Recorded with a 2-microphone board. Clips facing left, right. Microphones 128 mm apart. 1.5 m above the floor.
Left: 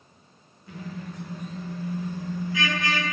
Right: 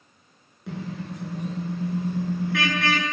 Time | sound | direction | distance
0.7 | a car horn | 75° right (ahead or behind) | 9 m